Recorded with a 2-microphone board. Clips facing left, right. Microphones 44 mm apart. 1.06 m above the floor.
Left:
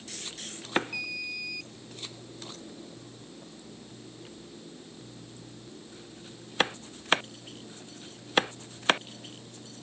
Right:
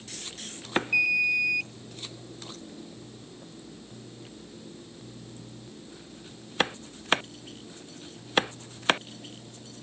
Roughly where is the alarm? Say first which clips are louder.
Right 12 dB; right.